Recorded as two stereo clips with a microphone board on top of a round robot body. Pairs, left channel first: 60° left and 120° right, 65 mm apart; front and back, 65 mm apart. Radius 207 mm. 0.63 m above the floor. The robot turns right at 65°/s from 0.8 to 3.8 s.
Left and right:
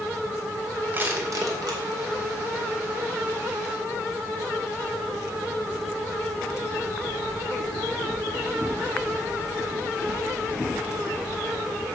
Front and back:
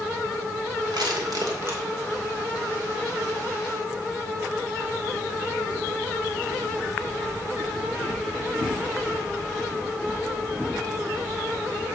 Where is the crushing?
175° left, 2.5 m; by 1.8 s 125° right, 2.5 m.